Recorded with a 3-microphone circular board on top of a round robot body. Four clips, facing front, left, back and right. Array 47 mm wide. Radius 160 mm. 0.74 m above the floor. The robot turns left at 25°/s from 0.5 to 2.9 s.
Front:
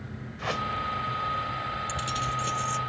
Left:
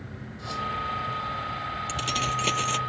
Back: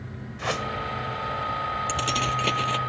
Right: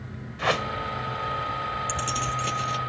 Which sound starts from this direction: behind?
Keys jangling, at 1.9 s.